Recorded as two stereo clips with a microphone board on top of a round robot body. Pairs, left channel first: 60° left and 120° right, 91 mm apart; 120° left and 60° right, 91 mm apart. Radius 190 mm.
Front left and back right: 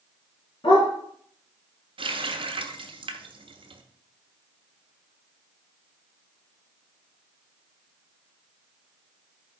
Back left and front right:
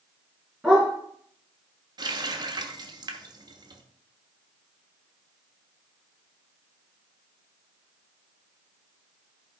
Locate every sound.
0.6 s a dog barking: 25° left, 3.5 m
2.0 s a running tap: 105° right, 1.2 m